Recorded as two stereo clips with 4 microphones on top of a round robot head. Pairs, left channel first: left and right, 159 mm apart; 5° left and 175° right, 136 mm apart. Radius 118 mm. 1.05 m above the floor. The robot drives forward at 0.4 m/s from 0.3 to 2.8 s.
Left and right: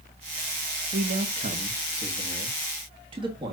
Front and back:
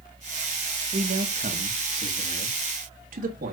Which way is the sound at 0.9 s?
135° right.